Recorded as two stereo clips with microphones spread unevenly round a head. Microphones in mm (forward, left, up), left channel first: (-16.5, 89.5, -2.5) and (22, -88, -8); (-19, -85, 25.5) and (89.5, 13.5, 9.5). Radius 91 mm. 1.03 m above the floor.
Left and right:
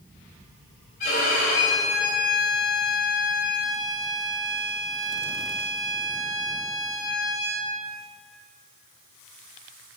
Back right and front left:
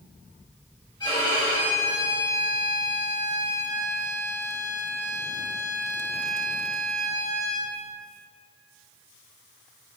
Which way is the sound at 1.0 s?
150° left.